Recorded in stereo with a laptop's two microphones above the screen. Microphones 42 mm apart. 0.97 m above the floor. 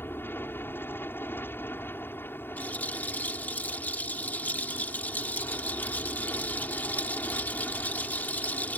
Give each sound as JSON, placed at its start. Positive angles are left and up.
{"t": 0.0, "sound": "an aircraft", "side_deg": 55}
{"t": 2.6, "sound": "a rattle", "side_deg": 40}